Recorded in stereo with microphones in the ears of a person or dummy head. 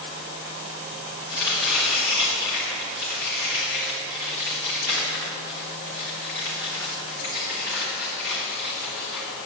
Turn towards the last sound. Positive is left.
turn(degrees=20)  # may be behind; listen again after turning